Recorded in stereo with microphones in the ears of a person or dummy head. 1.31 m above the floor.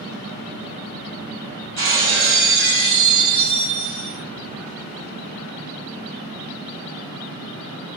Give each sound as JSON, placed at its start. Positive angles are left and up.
{"t": 1.8, "sound": "breaking glass", "side_deg": -65, "distance_m": 1.4}